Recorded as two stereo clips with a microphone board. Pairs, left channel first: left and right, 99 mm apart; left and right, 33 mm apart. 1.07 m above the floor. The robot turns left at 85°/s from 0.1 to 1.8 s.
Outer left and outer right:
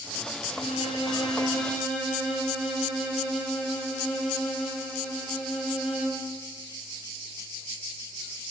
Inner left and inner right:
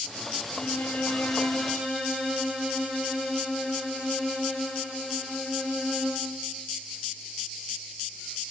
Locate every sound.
0.5 s a violin: 120° left, 4.5 m; by 6.3 s 5° left, 4.5 m